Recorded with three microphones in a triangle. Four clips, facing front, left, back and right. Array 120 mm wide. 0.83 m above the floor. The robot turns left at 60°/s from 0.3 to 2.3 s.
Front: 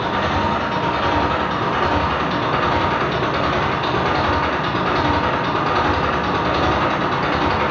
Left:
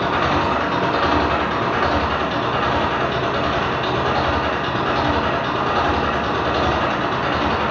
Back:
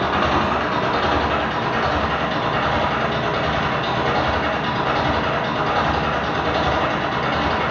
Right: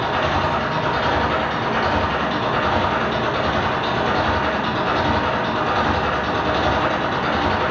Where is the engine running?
120° left, 3 m; by 7.7 s straight ahead, 3 m.